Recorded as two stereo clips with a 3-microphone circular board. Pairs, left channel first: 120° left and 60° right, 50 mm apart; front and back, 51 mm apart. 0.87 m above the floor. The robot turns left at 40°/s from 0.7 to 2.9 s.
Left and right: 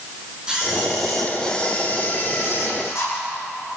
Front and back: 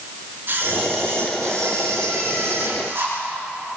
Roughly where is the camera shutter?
Behind right.